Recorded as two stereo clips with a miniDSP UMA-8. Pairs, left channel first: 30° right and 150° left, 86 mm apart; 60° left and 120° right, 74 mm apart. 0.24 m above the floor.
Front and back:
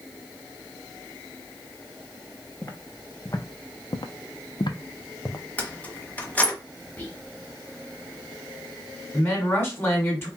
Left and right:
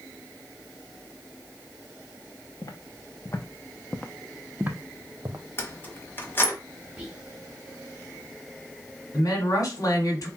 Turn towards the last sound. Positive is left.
turn(degrees=25)